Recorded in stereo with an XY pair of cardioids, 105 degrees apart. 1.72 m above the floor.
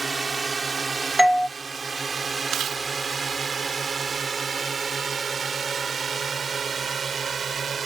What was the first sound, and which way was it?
A drone, 25° right.